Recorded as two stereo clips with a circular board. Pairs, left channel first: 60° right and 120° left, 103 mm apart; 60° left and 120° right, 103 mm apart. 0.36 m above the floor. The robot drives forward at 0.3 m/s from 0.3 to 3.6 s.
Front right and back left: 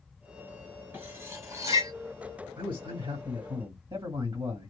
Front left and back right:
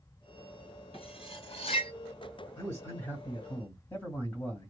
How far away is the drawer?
I don't hear a drawer.